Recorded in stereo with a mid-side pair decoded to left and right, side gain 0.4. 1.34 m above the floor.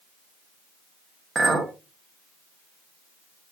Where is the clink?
40° right, 1.3 m.